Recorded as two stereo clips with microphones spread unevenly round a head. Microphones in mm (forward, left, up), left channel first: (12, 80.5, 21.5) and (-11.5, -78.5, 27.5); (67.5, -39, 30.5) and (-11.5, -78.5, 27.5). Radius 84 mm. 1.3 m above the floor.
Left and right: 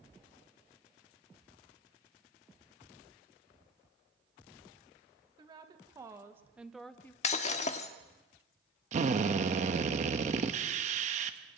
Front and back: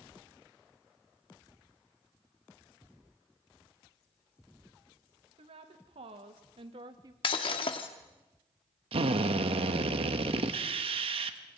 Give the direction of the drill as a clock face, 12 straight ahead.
5 o'clock.